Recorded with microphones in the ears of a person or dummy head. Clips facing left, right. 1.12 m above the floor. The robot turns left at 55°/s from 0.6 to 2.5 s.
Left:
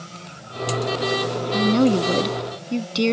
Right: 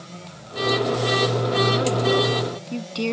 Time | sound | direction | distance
1.5 | a woman speaking | 75° left | ?